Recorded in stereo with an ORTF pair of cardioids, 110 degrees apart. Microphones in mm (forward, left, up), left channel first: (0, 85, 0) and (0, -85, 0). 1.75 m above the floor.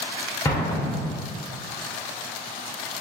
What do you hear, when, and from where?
0.5 s an explosion: 15° left, 1.3 m